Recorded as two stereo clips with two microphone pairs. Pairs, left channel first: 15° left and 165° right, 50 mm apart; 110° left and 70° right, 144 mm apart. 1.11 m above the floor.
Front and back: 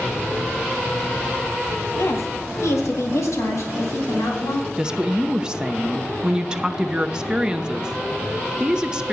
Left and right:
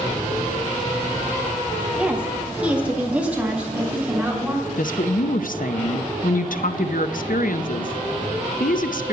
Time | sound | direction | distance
2.0 | a woman speaking | 10° left | 1.2 m
4.8 | a woman speaking | 125° left | 0.7 m